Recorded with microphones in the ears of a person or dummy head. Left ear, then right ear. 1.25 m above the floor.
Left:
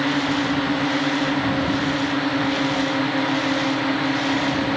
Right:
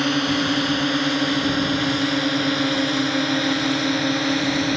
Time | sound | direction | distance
0.0 | a drone | 80° right | ?